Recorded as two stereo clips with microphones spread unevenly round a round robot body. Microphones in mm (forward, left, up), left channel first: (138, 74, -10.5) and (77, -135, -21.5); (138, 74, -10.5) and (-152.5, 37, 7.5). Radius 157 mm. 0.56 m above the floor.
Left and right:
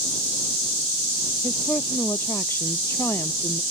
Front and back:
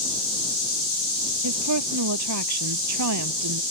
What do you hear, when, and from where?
1.4 s a woman speaking: 155° left